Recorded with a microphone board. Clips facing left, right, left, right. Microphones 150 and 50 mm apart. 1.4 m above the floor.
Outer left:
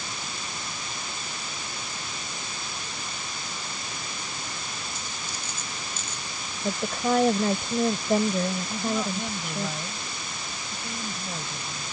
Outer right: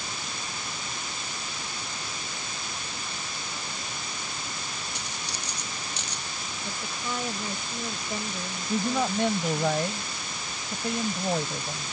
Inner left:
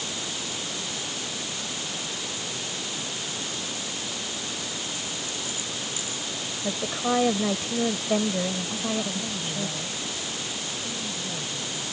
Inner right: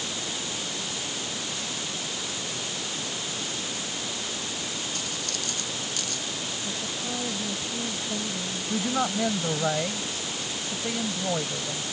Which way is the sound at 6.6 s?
60° left (ahead or behind).